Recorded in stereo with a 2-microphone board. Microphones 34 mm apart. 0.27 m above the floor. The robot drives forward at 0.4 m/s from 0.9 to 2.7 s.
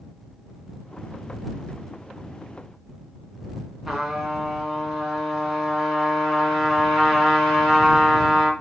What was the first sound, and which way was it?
A trumpet, centre (ahead or behind).